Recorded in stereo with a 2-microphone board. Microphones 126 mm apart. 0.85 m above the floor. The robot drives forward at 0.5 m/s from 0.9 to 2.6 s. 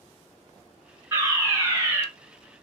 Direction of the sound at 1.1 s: 20° right (ahead or behind).